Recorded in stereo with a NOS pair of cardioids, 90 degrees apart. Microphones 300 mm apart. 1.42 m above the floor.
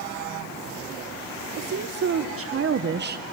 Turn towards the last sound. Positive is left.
turn(degrees=-30)